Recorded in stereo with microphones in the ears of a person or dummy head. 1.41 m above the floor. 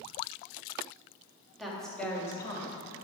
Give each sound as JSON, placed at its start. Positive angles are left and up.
{"t": 1.6, "sound": "a woman speaking", "side_deg": -5, "distance_m": 2.5}